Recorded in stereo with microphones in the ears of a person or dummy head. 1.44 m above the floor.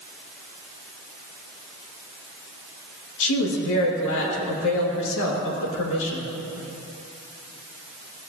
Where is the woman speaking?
80° left, 2.5 m.